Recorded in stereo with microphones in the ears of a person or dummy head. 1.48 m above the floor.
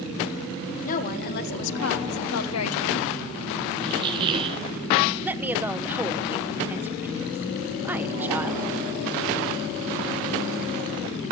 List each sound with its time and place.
0.8 s a woman speaking: 45° left (ahead or behind), 1.6 m; by 3.2 s 65° left (ahead or behind), 1.4 m
3.8 s a squeak: 30° right (ahead or behind), 0.8 m
5.2 s a woman speaking: 10° right (ahead or behind), 0.7 m